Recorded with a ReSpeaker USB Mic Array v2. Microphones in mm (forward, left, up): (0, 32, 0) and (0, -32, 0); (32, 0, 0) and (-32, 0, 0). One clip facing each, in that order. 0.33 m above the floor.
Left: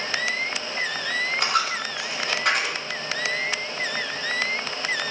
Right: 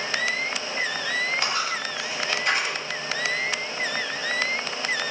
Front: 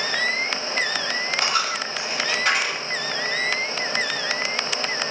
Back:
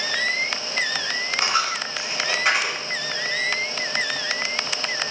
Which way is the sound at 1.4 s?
110° left.